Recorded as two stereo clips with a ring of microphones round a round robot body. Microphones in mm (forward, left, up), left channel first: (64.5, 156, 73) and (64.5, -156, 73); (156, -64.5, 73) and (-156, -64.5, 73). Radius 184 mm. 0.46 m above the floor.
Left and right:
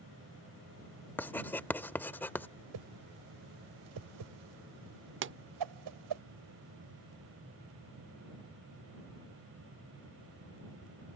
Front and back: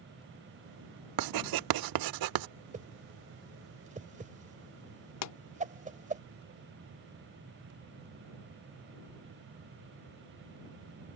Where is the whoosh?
110° right.